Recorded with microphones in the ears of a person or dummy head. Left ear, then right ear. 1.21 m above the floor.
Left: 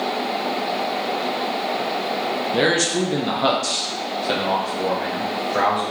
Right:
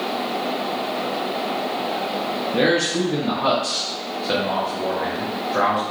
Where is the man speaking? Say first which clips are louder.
Even; 25° left (ahead or behind), 0.6 m; by 5.8 s 15° left (ahead or behind), 1.6 m.